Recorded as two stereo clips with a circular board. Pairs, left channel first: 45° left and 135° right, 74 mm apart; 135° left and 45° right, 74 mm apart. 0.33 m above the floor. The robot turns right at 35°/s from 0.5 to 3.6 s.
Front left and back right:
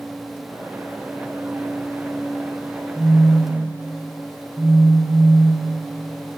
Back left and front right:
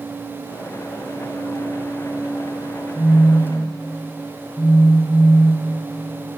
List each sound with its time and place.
3.0 s a phone buzzing: 115° left, 2 m; by 5.9 s 140° left, 2 m